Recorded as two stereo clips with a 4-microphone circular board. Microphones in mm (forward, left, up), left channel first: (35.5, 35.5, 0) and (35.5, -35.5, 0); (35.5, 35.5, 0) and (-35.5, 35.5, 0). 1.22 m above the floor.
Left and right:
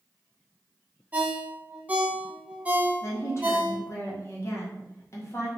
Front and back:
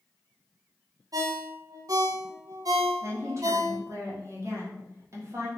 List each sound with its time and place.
1.1 s a ringtone: 155° right, 0.6 m
3.0 s a woman speaking: 135° left, 1.1 m